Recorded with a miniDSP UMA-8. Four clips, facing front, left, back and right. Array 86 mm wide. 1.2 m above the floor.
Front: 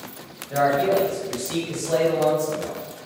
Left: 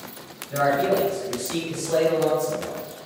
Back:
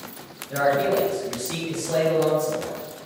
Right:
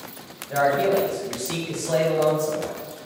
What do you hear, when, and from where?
0.5 s a man speaking: 80° right, 1.3 m